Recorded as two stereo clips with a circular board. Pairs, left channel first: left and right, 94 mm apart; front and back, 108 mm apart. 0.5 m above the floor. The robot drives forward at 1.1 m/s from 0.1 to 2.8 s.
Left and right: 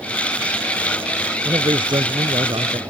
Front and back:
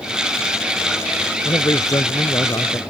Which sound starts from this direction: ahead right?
A man speaking, at 1.4 s.